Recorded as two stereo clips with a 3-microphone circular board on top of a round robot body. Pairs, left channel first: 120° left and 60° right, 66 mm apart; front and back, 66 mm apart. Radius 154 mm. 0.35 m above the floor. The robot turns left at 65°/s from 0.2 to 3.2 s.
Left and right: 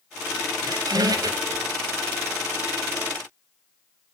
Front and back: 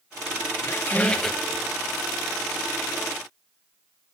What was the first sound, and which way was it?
A squeak, 45° right.